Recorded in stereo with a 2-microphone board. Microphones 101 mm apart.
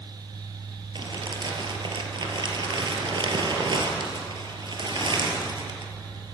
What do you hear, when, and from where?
0.9 s crumpling: 50° right (ahead or behind), 4 m